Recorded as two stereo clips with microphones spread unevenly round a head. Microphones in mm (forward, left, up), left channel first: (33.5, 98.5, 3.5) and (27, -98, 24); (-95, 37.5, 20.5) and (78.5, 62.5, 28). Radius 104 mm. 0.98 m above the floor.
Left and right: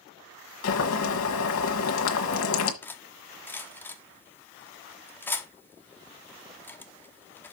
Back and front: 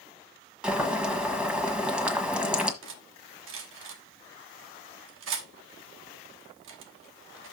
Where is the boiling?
90° left, 1.4 m.